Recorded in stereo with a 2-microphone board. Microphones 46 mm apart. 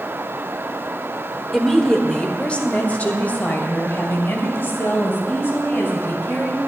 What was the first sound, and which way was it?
A woman speaking, 5° left (ahead or behind).